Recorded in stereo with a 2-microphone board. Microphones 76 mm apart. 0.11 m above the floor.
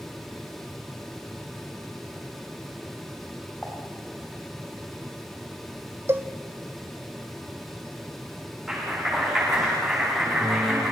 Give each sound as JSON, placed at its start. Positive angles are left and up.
{"t": 3.6, "sound": "dishes clattering", "side_deg": 15, "distance_m": 5.5}
{"t": 6.1, "sound": "a cowbell", "side_deg": -35, "distance_m": 0.9}
{"t": 8.7, "sound": "a clap", "side_deg": -5, "distance_m": 9.5}